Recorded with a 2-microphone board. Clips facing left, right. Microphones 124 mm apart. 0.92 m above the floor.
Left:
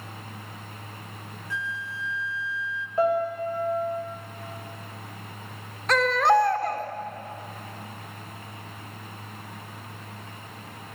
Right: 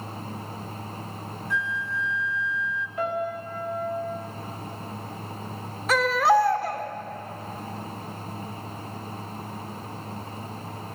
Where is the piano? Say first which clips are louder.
Left 6 dB; 30° left (ahead or behind), 5 m.